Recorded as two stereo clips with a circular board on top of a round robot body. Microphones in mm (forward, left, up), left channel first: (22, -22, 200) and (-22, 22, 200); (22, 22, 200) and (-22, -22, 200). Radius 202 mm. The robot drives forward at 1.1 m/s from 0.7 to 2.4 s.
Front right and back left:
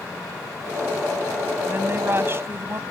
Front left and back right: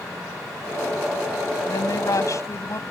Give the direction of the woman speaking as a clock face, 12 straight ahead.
9 o'clock.